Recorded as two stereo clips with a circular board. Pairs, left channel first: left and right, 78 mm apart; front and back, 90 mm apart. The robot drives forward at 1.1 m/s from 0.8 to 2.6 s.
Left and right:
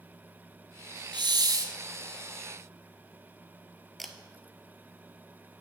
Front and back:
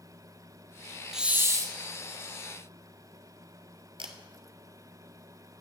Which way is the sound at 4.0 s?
Straight behind.